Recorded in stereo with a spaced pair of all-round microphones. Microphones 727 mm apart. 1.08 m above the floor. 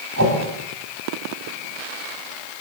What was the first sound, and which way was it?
A whoosh, 20° right (ahead or behind).